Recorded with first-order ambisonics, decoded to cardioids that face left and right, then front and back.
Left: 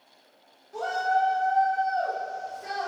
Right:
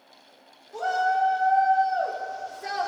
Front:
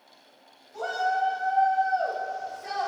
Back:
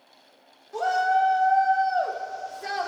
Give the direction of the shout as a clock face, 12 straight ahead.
6 o'clock.